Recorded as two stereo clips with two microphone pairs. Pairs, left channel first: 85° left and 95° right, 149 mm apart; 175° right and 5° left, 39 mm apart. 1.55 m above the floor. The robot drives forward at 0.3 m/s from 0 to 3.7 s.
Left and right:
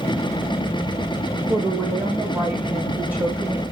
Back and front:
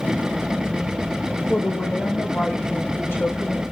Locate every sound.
1.5 s a woman speaking: 170° right, 1.8 m; by 3.6 s 175° right, 2.5 m